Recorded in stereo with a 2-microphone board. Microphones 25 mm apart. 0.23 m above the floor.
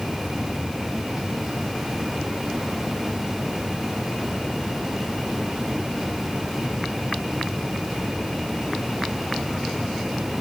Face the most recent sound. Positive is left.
No sound to turn to.